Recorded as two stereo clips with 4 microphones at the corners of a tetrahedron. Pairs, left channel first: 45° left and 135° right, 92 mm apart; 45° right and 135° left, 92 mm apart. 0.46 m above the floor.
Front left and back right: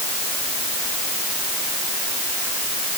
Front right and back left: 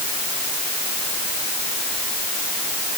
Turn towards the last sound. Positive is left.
No sound to turn to.